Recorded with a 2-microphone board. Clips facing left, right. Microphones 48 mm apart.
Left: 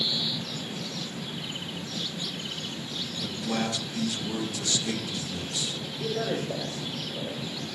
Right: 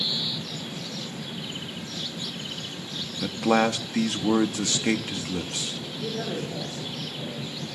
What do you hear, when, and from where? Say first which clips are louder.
3.2 s a man speaking: right 9 dB; 60° right (ahead or behind), 0.8 m
6.0 s a man speaking: left 2 dB; 80° left, 4.5 m